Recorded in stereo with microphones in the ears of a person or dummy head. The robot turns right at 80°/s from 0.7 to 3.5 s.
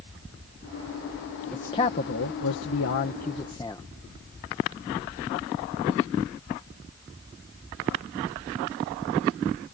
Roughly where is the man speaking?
Ahead.